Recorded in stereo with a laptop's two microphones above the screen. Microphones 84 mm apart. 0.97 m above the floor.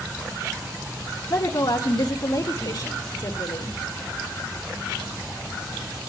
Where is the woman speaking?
60° left (ahead or behind), 2 m.